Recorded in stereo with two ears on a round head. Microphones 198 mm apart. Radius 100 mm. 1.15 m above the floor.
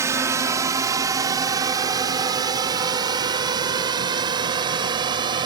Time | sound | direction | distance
0.0 | a drone | 15° right (ahead or behind) | ?